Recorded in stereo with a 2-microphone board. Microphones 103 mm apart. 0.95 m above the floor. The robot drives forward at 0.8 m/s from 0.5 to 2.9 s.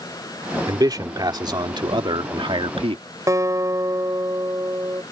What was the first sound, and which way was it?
A man speaking, 35° right (ahead or behind).